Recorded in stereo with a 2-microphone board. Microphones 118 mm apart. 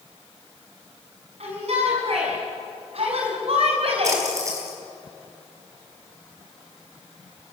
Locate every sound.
1.4 s a shout: 60° right (ahead or behind), 6 m; by 4.2 s 55° right (ahead or behind), 4 m
4.0 s a splash: 25° right (ahead or behind), 5 m